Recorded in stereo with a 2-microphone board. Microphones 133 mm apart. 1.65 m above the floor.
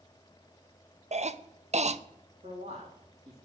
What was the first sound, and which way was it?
A cough, 55° right (ahead or behind).